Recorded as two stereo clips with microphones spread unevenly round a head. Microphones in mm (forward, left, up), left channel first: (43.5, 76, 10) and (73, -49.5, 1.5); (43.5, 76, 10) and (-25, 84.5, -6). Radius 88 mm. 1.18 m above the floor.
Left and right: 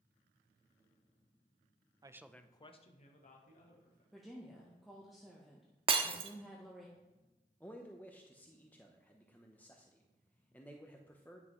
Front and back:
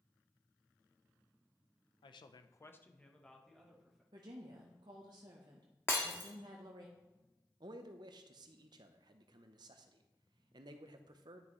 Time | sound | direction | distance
2.0 | a man speaking | 15° right | 0.6 m
4.1 | a woman speaking | 165° right | 0.8 m
5.9 | breaking glass | 45° right | 0.8 m
7.6 | a man speaking | 175° right | 0.6 m